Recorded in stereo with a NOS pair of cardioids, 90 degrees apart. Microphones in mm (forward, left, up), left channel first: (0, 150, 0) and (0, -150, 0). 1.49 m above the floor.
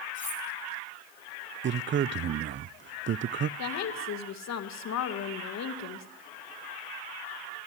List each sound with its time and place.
0.1 s cutlery clinking: 40° left, 5.5 m
1.6 s a man speaking: 40° right, 0.5 m
3.6 s a woman speaking: 60° left, 2 m